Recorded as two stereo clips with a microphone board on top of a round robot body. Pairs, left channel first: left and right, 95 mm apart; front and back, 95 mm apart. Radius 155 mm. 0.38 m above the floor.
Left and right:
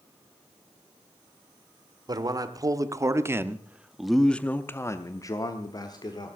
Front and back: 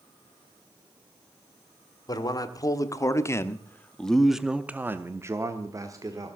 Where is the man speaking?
45° right, 1.6 m; by 6.4 s 130° left, 1.7 m.